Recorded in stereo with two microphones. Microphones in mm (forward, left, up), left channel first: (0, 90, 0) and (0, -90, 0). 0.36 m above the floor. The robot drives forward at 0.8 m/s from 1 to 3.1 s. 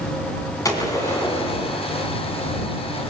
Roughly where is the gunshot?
Centre.